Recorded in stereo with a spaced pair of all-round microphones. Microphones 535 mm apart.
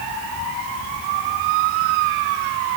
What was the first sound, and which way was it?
Only background noise.